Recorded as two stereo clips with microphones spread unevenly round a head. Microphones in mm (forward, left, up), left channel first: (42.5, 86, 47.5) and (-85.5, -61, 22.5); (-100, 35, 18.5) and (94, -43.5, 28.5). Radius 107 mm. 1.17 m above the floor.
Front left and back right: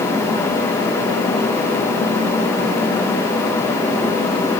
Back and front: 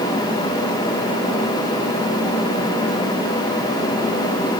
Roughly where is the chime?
No chime in this recording.